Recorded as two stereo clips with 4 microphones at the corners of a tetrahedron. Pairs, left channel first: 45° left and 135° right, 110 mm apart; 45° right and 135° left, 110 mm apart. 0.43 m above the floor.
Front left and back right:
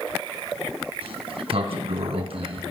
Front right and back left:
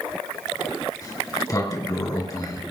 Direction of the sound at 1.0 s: 105° right.